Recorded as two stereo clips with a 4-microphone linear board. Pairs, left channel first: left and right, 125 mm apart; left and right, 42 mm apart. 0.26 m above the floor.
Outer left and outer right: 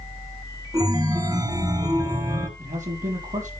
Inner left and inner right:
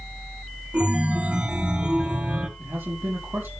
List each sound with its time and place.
0.7 s a chime: 30° right (ahead or behind), 1.6 m
2.6 s a man speaking: 80° right, 9.5 m